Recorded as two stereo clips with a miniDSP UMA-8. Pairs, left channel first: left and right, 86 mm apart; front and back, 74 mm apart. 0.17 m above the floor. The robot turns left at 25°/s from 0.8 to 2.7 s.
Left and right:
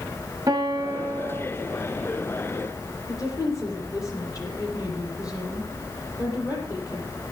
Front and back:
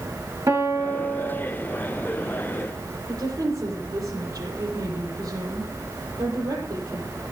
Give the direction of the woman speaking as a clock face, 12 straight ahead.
7 o'clock.